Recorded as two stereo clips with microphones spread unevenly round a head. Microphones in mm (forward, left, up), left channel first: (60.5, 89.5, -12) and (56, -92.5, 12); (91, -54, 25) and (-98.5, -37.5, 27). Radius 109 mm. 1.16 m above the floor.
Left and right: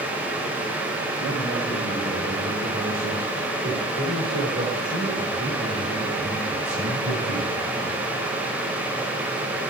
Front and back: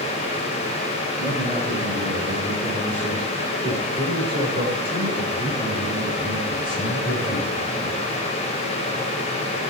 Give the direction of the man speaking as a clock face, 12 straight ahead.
5 o'clock.